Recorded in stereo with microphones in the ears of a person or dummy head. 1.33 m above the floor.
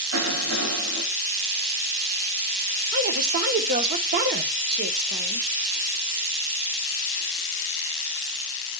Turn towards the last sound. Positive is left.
turn(degrees=-50)  # may be behind; listen again after turning